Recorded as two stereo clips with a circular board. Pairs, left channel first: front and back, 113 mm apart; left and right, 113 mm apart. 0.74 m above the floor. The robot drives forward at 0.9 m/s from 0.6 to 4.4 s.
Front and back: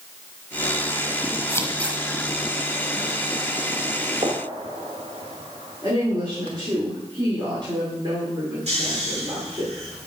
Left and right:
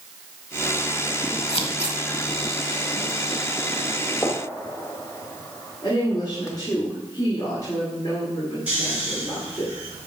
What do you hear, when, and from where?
1.5 s scissors: 60° left, 1.2 m; by 2.0 s 85° left, 1.1 m
4.2 s a gunshot: 155° left, 1.5 m
5.8 s a woman speaking: 135° left, 2.5 m
8.7 s snoring: 165° right, 5 m